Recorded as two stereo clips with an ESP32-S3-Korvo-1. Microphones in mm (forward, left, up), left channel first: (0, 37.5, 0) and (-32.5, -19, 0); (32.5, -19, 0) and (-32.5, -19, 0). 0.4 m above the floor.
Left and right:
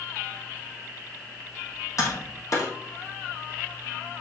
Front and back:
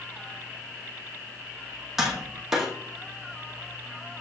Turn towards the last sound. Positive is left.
turn(degrees=95)